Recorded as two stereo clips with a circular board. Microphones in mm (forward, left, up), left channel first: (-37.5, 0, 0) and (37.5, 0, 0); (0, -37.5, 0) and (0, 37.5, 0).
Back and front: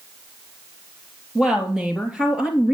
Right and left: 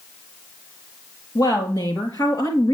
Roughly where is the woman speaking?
Right.